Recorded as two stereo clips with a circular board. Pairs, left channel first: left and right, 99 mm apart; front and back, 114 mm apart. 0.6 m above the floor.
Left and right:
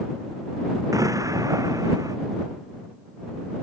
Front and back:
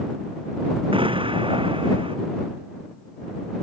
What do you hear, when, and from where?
0.9 s an explosion: 140° right